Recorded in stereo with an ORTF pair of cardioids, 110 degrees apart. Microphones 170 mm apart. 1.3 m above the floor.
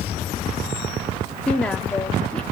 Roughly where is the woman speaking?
Ahead.